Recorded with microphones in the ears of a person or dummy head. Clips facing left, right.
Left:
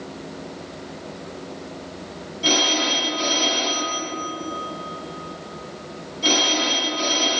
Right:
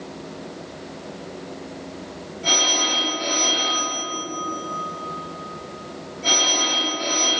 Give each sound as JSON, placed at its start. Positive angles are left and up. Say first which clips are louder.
{"t": 2.4, "sound": "a phone ringing", "louder": "left 4 dB", "side_deg": 70, "distance_m": 2.5}